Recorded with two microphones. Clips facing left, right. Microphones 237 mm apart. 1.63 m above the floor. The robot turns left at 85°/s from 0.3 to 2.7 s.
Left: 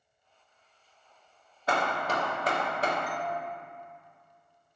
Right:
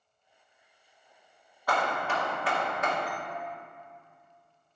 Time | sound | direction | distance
1.7 | hammering | 145° left | 1.0 m
3.1 | a doorbell | 35° right (ahead or behind) | 0.9 m